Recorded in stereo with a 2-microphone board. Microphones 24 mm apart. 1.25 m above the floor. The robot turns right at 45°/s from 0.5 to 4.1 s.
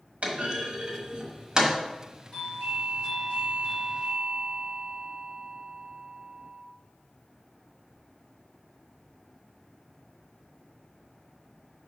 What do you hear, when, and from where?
0.2 s a clunk: 80° right, 1.7 m; by 1.8 s 20° right (ahead or behind), 1.7 m
2.3 s a doorbell: 60° left, 3 m; by 6.6 s 140° left, 3 m